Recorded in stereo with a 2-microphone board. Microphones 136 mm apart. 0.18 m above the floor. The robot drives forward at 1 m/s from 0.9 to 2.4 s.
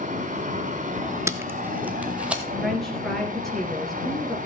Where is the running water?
70° right (ahead or behind), 3.5 m; by 4.5 s 90° right, 3.5 m.